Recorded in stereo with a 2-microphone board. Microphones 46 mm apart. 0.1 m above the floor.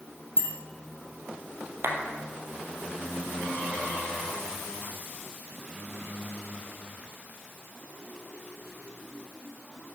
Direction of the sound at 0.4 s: 50° left (ahead or behind).